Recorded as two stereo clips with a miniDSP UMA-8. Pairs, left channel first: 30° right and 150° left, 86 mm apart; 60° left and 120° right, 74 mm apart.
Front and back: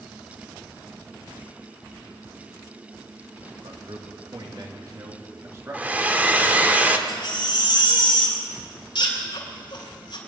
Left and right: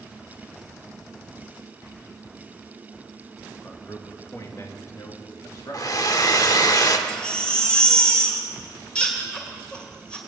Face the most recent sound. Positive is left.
turn(degrees=-15)